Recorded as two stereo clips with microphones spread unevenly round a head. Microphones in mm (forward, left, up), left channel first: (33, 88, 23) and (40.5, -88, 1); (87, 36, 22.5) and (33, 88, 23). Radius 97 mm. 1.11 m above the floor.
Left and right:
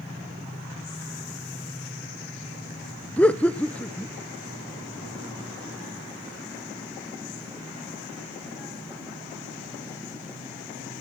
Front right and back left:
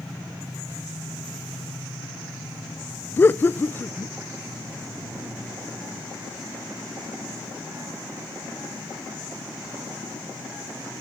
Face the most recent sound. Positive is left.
turn(degrees=5)